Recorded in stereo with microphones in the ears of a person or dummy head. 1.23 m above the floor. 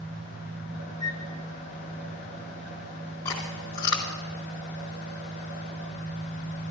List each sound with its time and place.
0.0 s an engine running: 80° right, 3 m
1.0 s a flute: 25° right (ahead or behind), 1.9 m
3.2 s chewing: 15° left (ahead or behind), 1.2 m